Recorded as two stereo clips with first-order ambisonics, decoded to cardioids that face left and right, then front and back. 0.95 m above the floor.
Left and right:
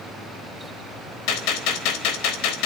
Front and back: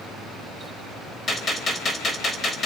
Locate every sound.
1.3 s a gunshot: 70° left, 3.5 m